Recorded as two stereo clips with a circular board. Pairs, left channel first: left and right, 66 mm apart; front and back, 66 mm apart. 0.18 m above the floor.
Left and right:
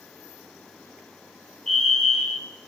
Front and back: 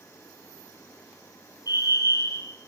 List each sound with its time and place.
1.7 s a fire alarm: 10° left, 6.5 m